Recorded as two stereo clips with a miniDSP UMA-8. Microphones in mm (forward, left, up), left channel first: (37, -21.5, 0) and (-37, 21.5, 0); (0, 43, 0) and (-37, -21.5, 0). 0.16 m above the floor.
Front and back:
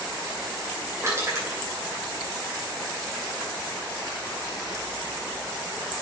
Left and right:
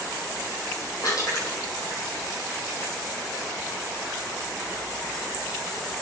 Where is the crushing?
90° left, 6 m.